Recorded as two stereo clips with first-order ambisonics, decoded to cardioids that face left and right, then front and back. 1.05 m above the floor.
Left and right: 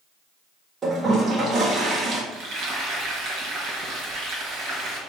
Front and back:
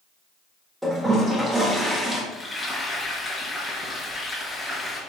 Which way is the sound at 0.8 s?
110° right.